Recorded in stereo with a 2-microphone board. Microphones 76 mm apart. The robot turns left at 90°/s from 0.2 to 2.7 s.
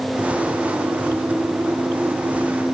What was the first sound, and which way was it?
Only background noise.